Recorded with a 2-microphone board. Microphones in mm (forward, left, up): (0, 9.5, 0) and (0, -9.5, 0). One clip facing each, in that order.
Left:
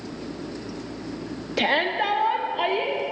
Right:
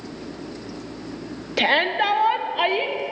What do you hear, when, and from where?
1.6 s a shout: 15° right (ahead or behind), 0.7 m; by 3.0 s 25° right (ahead or behind), 1.5 m